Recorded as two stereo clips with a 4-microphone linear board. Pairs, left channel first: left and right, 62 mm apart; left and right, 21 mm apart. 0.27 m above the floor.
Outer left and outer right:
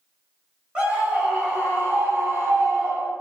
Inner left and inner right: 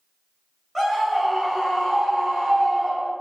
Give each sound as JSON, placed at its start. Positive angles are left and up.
{"t": 0.8, "sound": "a scream", "side_deg": -20, "distance_m": 1.5}